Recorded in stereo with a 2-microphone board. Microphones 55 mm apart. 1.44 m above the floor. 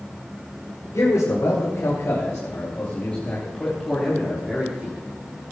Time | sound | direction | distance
0.9 | a man speaking | 75° left (ahead or behind) | 4 m